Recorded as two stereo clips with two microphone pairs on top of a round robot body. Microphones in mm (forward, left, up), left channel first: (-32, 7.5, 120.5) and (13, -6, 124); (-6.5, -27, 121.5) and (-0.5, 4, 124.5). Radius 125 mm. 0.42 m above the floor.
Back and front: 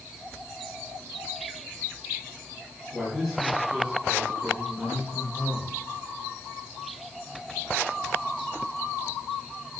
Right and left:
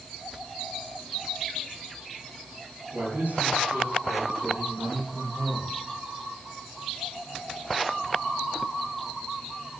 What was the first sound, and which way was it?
A man speaking, 70° left.